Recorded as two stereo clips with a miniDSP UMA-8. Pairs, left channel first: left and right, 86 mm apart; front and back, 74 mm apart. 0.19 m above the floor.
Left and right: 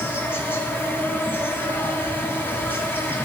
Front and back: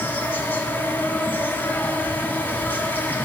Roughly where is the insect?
Ahead left.